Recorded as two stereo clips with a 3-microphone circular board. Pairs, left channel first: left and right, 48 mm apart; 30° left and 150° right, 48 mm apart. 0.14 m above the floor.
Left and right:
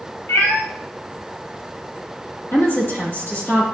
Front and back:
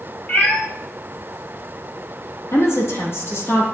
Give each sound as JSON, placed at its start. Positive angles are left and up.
{"t": 0.3, "sound": "a cat meowing", "azimuth_deg": 80, "distance_m": 1.5}
{"t": 2.5, "sound": "a woman speaking", "azimuth_deg": 50, "distance_m": 3.5}